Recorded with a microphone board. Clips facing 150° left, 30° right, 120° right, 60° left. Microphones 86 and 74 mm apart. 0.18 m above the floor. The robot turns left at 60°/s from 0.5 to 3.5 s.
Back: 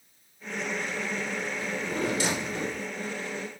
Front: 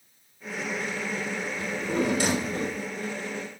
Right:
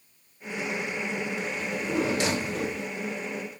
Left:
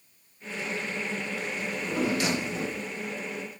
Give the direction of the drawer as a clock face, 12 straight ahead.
1 o'clock.